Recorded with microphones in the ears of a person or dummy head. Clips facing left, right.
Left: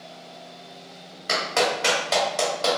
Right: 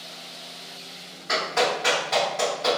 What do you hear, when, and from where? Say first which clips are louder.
1.3 s a clap: even; 65° left (ahead or behind), 1.3 m